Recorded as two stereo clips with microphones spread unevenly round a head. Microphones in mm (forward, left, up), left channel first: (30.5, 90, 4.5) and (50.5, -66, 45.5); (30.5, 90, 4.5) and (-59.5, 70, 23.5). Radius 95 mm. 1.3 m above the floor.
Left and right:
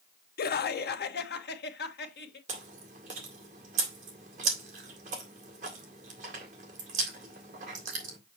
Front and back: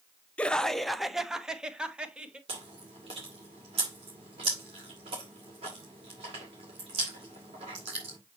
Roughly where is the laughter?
Left.